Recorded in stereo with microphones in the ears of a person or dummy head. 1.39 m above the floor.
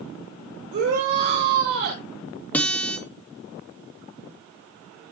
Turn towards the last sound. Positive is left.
turn(degrees=15)  # may be behind; listen again after turning